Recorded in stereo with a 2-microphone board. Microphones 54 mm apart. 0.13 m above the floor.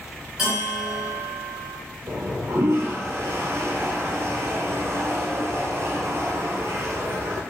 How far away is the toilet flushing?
About 0.5 m.